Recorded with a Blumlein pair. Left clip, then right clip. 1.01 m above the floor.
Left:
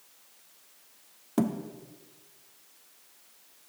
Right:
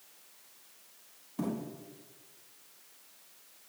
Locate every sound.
1.4 s a thud: 45° left, 1.1 m